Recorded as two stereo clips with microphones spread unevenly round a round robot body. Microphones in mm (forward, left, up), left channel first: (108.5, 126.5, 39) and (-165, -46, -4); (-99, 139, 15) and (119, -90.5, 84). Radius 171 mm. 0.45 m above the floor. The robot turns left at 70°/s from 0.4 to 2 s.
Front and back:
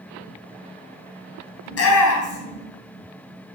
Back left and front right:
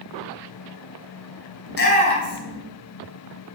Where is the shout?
90° left, 4 m; by 2.6 s 65° left, 4 m.